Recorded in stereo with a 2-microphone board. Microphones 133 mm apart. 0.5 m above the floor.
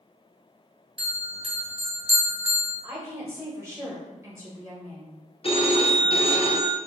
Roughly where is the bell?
Right.